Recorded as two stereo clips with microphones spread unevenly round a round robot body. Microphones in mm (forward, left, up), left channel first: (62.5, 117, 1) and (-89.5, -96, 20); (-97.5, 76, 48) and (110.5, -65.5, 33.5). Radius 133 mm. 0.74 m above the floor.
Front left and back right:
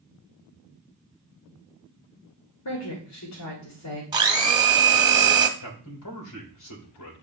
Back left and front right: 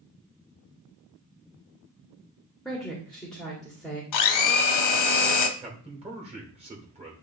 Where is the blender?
160° left, 1.0 m.